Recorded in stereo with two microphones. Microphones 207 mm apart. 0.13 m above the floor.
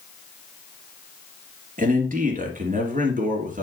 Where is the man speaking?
40° right (ahead or behind), 2.5 m.